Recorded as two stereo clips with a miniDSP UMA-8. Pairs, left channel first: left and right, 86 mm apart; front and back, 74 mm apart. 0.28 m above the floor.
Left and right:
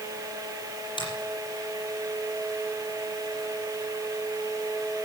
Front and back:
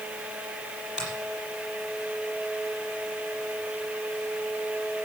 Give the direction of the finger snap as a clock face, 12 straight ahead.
9 o'clock.